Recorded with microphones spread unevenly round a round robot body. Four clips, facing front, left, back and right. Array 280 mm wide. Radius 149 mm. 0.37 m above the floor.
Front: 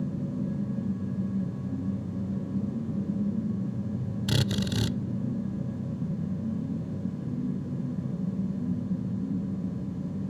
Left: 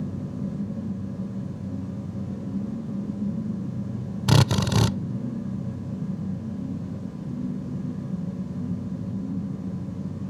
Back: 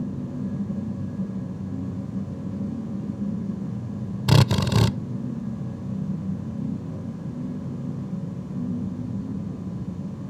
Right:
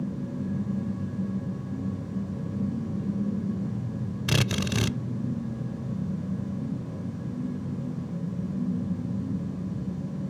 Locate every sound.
4.3 s a drill: 145° left